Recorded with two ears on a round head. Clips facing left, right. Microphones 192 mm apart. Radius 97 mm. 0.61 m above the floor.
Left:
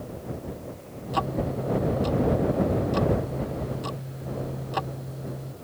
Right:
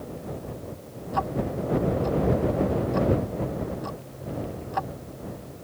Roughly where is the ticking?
Left.